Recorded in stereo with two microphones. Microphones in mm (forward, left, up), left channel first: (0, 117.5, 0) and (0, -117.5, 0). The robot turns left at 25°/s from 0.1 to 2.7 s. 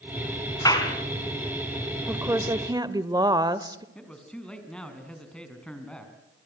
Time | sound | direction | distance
0.7 | a clap | 15° left (ahead or behind) | 3.5 m
2.1 | a woman speaking | 10° right (ahead or behind) | 1.0 m
4.0 | a man speaking | 5° left (ahead or behind) | 4 m